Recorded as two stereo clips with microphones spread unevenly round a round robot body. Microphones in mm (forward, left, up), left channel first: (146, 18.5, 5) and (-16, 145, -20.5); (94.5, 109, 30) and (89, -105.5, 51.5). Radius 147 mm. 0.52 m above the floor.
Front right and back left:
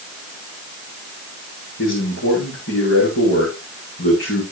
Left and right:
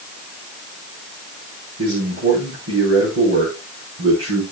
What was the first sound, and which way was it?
A man speaking, 80° right.